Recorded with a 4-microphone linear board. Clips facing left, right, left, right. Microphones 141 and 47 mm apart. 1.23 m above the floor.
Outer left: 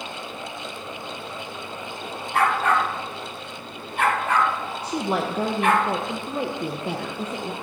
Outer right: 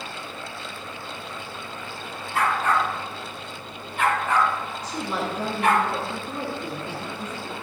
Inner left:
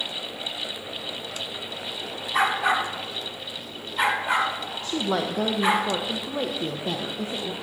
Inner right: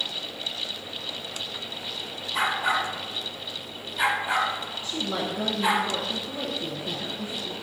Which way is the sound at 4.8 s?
65° left (ahead or behind).